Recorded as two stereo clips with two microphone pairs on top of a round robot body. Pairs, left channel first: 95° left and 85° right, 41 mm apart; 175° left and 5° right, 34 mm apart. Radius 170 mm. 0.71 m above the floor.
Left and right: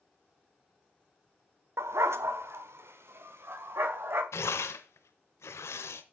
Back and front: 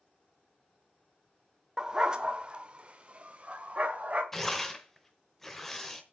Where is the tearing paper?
95° left, 0.7 m.